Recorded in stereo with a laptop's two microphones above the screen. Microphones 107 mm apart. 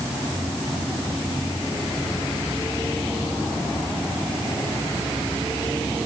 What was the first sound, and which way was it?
Only background noise.